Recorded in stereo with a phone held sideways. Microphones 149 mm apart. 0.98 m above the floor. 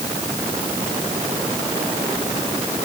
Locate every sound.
Only background noise.